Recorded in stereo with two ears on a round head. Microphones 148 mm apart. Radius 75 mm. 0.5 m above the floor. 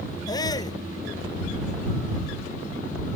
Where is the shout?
25° left (ahead or behind).